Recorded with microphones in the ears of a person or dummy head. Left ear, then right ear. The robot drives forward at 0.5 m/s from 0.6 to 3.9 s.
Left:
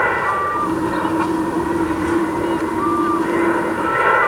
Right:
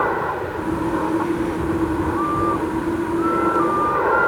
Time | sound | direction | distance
0.0 | an aircraft | 70° left (ahead or behind) | ?